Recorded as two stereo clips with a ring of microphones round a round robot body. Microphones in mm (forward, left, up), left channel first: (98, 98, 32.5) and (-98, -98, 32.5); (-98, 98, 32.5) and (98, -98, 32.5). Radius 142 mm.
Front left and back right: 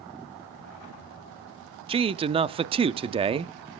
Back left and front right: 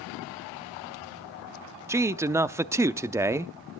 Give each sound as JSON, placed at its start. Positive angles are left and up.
{"t": 1.9, "sound": "a man speaking", "azimuth_deg": -110, "distance_m": 0.6}